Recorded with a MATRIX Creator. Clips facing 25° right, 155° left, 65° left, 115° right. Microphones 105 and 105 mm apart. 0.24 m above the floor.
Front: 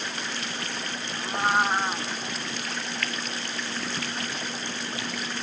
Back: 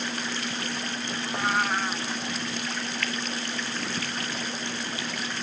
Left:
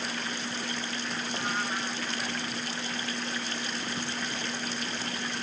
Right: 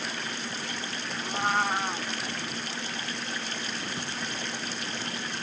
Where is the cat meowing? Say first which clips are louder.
Front 3 dB, right 7 dB; 80° right.